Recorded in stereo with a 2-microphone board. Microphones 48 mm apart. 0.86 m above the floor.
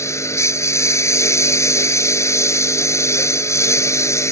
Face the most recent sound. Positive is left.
turn(degrees=85)